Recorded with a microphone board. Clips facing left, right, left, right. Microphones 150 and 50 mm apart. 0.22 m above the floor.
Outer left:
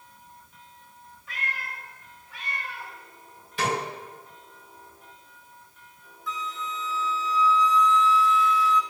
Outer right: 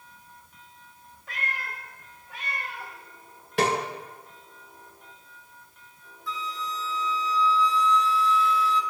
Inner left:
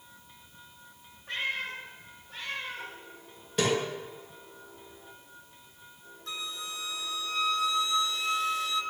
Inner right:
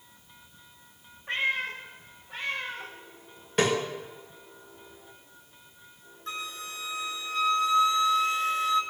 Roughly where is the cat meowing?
Right.